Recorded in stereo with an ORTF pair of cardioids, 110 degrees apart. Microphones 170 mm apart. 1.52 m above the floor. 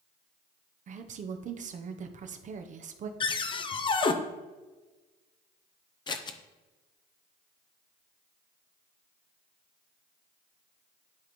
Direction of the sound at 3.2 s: 30° left.